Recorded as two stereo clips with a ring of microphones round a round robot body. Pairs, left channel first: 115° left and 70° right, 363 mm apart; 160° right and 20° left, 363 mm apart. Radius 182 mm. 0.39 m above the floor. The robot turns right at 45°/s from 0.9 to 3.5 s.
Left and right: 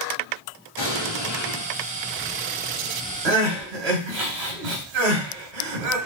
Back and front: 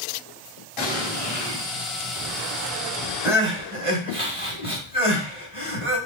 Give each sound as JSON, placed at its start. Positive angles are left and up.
{"t": 0.8, "sound": "an explosion", "azimuth_deg": 170, "distance_m": 3.0}
{"t": 3.2, "sound": "crying", "azimuth_deg": -65, "distance_m": 1.9}